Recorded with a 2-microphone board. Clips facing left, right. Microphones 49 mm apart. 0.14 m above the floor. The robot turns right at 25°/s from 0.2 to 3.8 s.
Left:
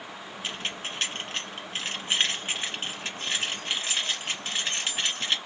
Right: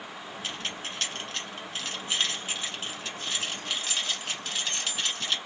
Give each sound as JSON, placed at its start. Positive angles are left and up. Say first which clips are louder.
{"t": 0.4, "sound": "keys jangling", "louder": "left 2 dB", "side_deg": 25, "distance_m": 1.2}